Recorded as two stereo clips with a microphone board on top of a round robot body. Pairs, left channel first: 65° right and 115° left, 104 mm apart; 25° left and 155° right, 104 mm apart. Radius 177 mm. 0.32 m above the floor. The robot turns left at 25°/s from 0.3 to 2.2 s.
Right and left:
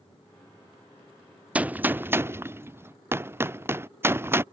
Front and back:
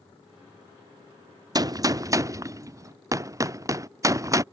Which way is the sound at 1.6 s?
Straight behind.